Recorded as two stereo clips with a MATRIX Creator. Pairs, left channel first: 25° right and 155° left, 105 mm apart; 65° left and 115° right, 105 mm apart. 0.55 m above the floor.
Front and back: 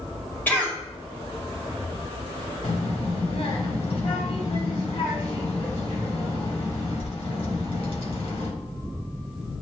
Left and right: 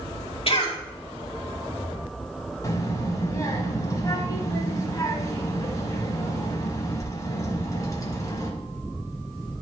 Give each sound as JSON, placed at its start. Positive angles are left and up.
{"t": 0.5, "sound": "a cough", "azimuth_deg": 50, "distance_m": 2.0}
{"t": 2.6, "sound": "a child speaking", "azimuth_deg": 5, "distance_m": 2.0}